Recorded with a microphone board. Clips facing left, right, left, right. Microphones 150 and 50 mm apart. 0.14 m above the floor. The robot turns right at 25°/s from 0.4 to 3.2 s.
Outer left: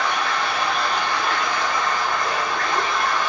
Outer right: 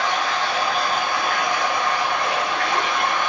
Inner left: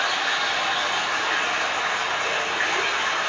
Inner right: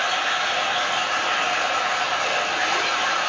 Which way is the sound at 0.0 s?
150° right.